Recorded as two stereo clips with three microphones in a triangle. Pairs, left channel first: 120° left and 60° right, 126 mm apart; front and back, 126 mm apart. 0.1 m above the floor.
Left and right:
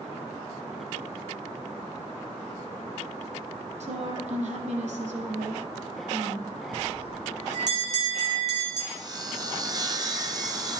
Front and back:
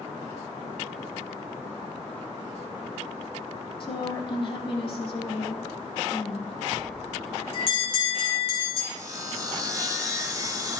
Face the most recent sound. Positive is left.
turn(degrees=-120)